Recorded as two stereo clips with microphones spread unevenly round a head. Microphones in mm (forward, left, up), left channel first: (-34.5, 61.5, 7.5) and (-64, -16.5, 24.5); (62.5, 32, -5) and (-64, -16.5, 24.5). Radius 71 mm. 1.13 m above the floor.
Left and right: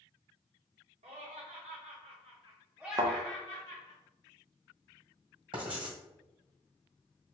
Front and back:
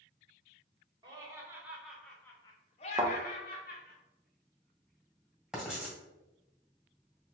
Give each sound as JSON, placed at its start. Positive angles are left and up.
{"t": 1.0, "sound": "laughter", "azimuth_deg": -95, "distance_m": 1.2}
{"t": 3.0, "sound": "a thud", "azimuth_deg": -110, "distance_m": 0.6}
{"t": 5.5, "sound": "writing", "azimuth_deg": -80, "distance_m": 1.6}